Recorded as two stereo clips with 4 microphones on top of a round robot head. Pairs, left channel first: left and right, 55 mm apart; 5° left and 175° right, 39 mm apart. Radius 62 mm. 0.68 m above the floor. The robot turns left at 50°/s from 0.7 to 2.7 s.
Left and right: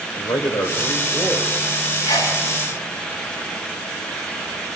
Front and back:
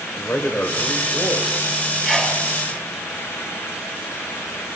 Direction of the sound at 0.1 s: 65° left.